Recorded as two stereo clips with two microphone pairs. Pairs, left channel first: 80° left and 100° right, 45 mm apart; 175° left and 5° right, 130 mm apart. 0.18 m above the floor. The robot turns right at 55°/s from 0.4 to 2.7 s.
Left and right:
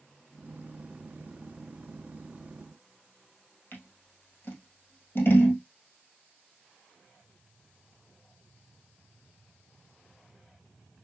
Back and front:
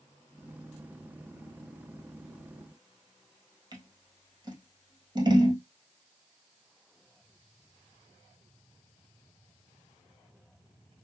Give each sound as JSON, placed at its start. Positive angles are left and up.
{"t": 3.7, "sound": "scissors", "azimuth_deg": 50, "distance_m": 1.8}